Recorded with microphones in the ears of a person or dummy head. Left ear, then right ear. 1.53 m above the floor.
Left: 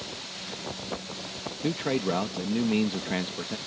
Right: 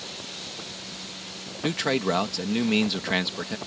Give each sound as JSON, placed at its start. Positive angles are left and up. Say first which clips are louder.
{"t": 1.6, "sound": "a man speaking", "louder": "right 3 dB", "side_deg": -40}